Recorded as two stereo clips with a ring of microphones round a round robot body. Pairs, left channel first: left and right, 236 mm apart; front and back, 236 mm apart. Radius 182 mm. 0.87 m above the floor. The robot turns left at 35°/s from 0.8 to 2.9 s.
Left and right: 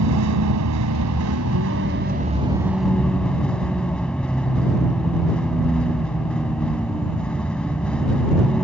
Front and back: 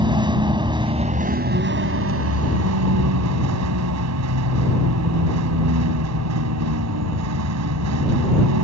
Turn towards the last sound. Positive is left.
turn(degrees=175)